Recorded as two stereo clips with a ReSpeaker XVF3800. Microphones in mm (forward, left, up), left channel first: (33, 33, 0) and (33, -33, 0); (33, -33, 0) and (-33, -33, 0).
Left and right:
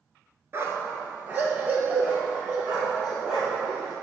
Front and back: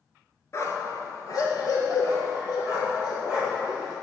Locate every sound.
0.5 s a dog barking: 40° right, 1.4 m; by 3.9 s 15° right, 3.5 m